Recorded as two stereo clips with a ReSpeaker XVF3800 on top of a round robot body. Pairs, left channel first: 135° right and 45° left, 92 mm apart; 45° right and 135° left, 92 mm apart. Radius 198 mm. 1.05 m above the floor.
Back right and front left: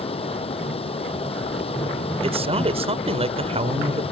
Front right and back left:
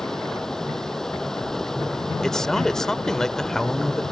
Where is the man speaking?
40° left.